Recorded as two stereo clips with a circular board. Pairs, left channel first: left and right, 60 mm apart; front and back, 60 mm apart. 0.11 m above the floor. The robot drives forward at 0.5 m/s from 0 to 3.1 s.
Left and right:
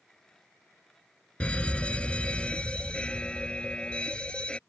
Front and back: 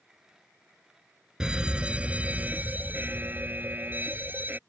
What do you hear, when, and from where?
1.4 s a fire alarm: 125° left; by 4.6 s 150° left